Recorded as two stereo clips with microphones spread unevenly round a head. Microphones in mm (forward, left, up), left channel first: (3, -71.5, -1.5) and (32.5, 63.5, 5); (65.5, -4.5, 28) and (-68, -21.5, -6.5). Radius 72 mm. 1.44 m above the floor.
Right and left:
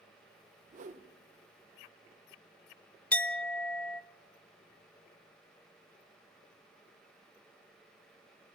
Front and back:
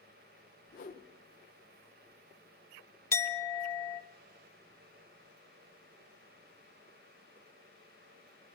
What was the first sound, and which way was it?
A whoosh, 40° left.